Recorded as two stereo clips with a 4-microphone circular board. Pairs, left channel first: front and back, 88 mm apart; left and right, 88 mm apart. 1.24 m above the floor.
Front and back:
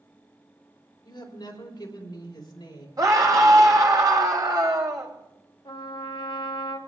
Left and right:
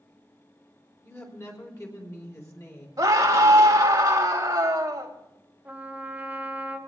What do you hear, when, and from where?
1.0 s a woman speaking: 35° left, 4 m
3.0 s a scream: 140° right, 3 m
5.7 s a trumpet: 20° right, 1.4 m